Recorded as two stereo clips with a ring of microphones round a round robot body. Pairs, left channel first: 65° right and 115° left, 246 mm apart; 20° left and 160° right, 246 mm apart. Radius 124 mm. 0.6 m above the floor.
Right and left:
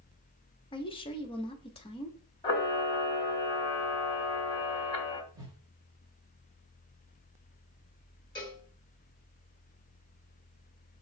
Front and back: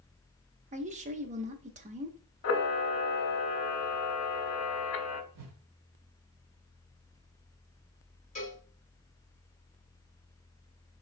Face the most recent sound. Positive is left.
turn(degrees=-10)